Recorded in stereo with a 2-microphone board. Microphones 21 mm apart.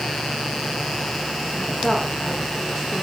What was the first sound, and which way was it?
A woman speaking, 35° left (ahead or behind).